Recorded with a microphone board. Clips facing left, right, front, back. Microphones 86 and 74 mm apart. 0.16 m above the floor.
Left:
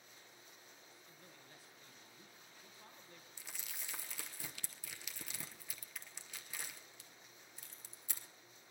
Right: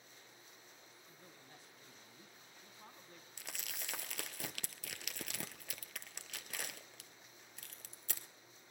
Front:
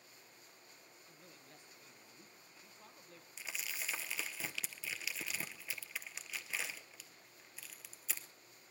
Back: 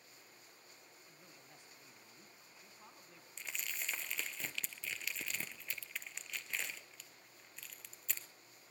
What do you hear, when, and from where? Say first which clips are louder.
1.1 s a man speaking: right 2 dB, front 2 dB; 125° right, 1.4 m
3.4 s crumpling: right 4 dB, even; 85° right, 0.7 m